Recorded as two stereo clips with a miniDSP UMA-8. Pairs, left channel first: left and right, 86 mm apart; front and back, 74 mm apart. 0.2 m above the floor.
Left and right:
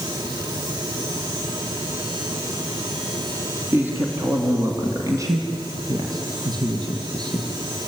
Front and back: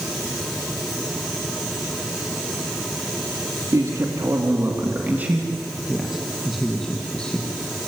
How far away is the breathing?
I don't hear breathing.